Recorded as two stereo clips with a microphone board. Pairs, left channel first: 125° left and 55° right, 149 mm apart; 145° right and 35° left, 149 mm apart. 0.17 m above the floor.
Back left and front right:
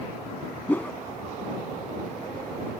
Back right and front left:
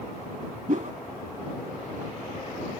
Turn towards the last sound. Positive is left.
turn(degrees=50)